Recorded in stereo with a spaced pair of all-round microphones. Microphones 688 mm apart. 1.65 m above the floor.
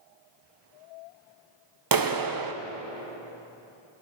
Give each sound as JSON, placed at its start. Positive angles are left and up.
{"t": 1.9, "sound": "a clap", "side_deg": -35, "distance_m": 0.5}